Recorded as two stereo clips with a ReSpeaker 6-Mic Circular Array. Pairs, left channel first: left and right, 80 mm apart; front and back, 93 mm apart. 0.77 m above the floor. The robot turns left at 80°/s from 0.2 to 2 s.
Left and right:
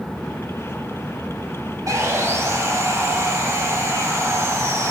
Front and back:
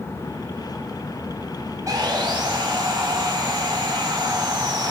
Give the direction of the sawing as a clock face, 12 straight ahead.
4 o'clock.